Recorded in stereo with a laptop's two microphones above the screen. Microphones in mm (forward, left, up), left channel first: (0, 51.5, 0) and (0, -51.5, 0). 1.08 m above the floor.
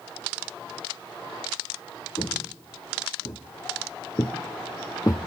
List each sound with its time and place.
2.2 s footsteps: 50° left (ahead or behind), 3 m; by 5.3 s 35° left (ahead or behind), 1.3 m